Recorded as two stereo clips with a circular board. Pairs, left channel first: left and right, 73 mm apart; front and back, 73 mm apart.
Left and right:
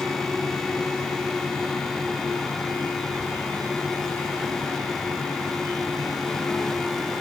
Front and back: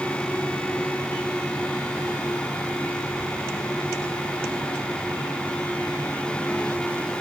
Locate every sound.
Only background noise.